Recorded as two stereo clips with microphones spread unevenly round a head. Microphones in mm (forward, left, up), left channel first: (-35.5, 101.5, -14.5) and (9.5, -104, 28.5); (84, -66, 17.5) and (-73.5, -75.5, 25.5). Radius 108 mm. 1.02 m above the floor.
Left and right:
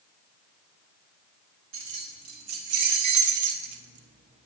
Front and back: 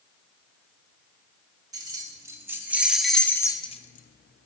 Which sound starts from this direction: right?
Keys jangling, at 1.7 s.